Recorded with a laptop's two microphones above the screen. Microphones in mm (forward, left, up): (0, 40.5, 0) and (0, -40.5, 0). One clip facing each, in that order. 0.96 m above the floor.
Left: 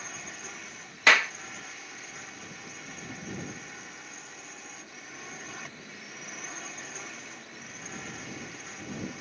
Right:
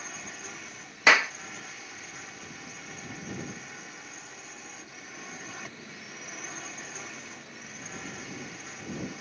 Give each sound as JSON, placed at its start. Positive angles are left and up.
{"t": 0.0, "sound": "a drone", "side_deg": 0}
{"t": 1.1, "sound": "a clap", "side_deg": -10}